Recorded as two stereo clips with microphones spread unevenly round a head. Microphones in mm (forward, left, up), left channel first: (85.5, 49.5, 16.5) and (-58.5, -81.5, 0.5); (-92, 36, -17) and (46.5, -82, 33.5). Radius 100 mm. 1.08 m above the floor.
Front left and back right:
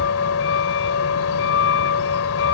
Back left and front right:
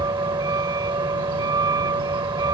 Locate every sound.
0.0 s a vehicle: 30° left